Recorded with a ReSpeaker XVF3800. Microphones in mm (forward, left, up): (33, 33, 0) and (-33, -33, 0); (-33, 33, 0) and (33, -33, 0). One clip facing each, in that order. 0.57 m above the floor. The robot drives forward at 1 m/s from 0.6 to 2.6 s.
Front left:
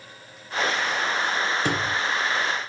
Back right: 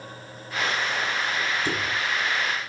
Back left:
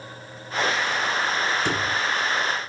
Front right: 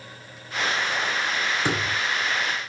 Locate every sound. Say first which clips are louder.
1.6 s a thud: front left 3 dB, back left 1 dB; 25° left, 2.5 m